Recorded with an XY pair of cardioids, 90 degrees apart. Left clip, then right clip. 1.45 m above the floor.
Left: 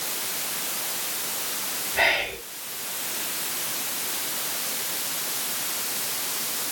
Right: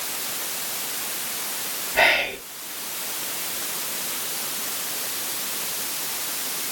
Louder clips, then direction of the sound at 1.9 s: Right 4 dB; 35° right.